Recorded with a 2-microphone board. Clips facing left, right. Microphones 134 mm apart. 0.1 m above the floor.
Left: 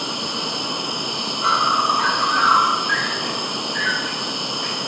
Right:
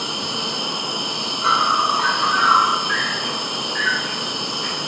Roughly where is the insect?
Left.